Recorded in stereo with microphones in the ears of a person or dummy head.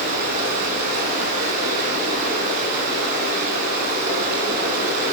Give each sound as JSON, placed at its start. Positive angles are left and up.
{"t": 0.0, "sound": "running water", "side_deg": -50, "distance_m": 3.0}